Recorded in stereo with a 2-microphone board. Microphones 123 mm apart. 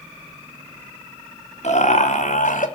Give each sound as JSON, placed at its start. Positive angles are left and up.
{"t": 1.6, "sound": "laughter", "side_deg": 60, "distance_m": 3.0}